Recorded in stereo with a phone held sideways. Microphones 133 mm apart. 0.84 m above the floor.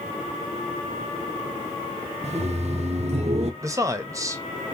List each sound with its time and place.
2.2 s laughter: 55° right (ahead or behind), 0.6 m
3.6 s a man speaking: 25° right (ahead or behind), 0.6 m